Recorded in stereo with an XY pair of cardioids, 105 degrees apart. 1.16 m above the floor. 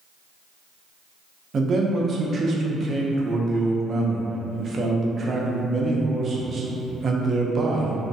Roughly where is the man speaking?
Ahead right.